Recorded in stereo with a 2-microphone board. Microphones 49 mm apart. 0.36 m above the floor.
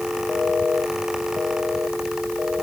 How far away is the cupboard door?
No cupboard door in this recording.